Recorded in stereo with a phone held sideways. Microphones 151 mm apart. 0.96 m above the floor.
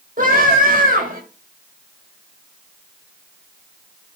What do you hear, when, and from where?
0.2 s a scream: 70° right (ahead or behind), 4.5 m